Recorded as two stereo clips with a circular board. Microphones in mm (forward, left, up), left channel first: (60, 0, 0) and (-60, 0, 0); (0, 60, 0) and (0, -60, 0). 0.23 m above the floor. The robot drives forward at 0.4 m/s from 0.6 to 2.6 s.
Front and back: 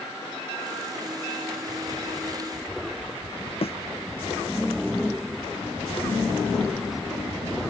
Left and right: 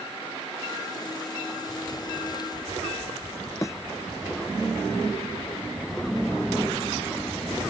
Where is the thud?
30° left.